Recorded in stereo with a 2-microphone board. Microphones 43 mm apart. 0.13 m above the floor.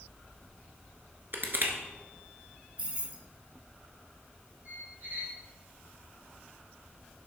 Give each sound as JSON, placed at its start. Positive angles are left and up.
{"t": 1.3, "sound": "crushing", "side_deg": -50, "distance_m": 1.1}
{"t": 2.8, "sound": "keys jangling", "side_deg": -25, "distance_m": 1.5}
{"t": 4.7, "sound": "a squeak", "side_deg": -50, "distance_m": 2.0}